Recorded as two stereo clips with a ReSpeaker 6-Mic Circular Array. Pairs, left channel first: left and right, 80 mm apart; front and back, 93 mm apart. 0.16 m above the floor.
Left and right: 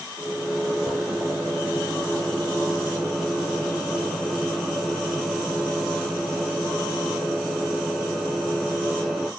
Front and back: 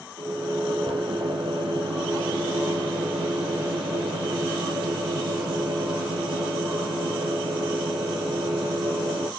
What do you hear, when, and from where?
0.2 s a microwave: 170° right, 2.5 m